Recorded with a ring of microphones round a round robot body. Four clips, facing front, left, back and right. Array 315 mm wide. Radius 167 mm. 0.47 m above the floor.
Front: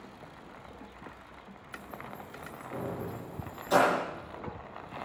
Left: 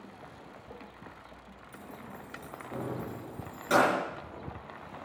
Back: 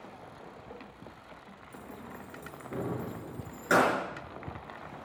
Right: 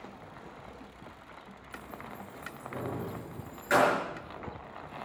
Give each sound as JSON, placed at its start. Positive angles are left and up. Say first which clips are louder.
{"t": 1.7, "sound": "keys jangling", "louder": "right 2 dB, front 2 dB", "azimuth_deg": 165, "distance_m": 5.5}